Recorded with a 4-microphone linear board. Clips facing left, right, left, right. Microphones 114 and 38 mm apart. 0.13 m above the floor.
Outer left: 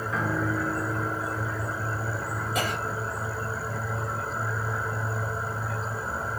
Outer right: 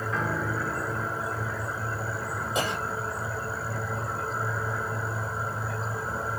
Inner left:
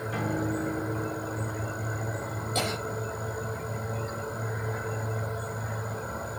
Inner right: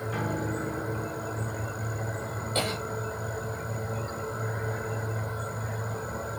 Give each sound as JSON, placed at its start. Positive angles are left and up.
{"t": 0.1, "sound": "a piano", "side_deg": 0, "distance_m": 1.8}
{"t": 2.5, "sound": "a cough", "side_deg": -25, "distance_m": 5.5}